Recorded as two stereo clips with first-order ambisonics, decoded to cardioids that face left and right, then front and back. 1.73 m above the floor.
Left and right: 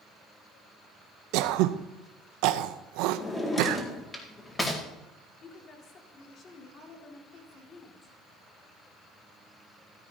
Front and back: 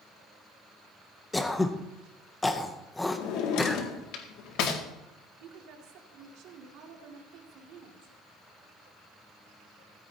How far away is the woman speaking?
About 2.5 m.